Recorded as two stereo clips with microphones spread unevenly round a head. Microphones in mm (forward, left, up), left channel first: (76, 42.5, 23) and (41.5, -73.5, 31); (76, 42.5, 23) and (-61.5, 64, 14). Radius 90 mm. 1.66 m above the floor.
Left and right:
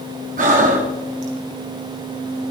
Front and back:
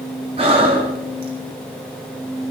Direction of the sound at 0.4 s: 130° right.